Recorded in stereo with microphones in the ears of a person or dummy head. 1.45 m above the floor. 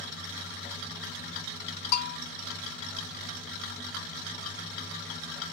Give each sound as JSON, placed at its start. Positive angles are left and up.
{"t": 1.9, "sound": "a bell", "side_deg": 55, "distance_m": 0.5}